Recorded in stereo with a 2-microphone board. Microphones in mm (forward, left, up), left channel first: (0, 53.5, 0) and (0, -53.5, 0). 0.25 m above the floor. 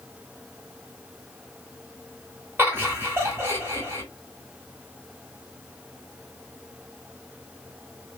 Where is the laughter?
20° right (ahead or behind), 1.1 m.